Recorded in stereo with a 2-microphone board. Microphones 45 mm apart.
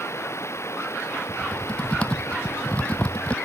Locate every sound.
0.0 s running water: 85° left
1.3 s typing on a keyboard: 25° left (ahead or behind)